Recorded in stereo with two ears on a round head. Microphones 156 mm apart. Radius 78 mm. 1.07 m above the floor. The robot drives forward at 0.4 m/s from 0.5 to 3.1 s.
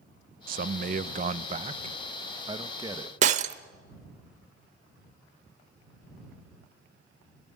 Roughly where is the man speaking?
Right.